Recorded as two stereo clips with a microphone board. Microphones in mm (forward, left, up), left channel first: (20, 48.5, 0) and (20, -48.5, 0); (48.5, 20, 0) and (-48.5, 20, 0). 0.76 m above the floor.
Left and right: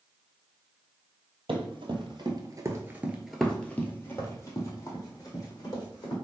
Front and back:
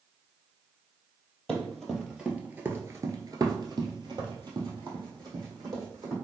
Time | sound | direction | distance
1.5 | running footsteps | 85° right | 1.4 m